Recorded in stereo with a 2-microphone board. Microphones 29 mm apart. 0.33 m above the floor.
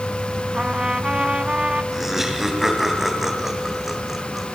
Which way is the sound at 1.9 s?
15° right (ahead or behind).